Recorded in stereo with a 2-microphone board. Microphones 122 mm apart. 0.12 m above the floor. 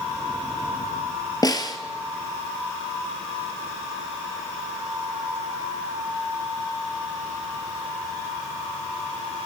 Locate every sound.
1.4 s a snare drum: 30° left (ahead or behind), 1.1 m